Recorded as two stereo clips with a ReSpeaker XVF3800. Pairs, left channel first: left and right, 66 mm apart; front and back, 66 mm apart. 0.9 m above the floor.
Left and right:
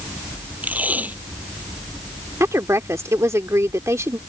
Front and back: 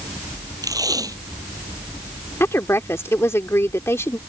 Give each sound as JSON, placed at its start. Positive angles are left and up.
{"t": 0.6, "sound": "tape being pulled", "azimuth_deg": -155}
{"t": 2.4, "sound": "a woman speaking", "azimuth_deg": -45}